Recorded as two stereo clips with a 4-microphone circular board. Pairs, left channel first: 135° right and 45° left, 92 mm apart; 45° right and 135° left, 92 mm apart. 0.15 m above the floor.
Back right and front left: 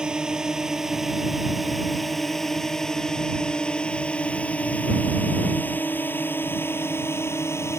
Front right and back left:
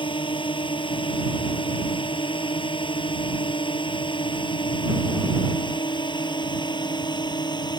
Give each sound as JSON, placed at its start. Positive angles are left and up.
{"t": 0.0, "sound": "a drone", "azimuth_deg": -35}